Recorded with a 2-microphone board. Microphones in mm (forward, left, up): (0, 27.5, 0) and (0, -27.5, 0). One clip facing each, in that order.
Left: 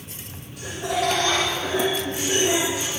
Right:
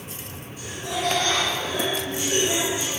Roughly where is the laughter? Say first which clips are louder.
Left 4 dB; left.